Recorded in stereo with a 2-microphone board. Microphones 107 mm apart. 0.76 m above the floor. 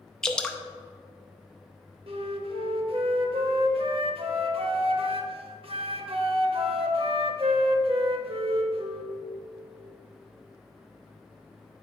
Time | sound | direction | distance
0.2 | dripping | 5° left (ahead or behind) | 0.6 m
2.1 | a flute | 60° right (ahead or behind) | 0.9 m